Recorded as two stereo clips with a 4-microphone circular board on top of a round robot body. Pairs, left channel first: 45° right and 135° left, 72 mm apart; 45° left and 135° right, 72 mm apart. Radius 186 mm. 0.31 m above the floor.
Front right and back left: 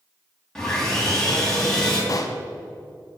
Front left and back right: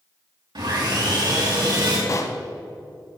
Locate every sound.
0.6 s sawing: 125° right, 3.5 m
2.1 s a pop: straight ahead, 0.7 m